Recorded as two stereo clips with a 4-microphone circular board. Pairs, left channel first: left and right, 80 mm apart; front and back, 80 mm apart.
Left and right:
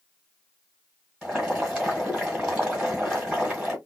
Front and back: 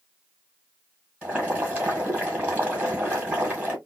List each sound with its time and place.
1.2 s boiling: 150° right, 1.6 m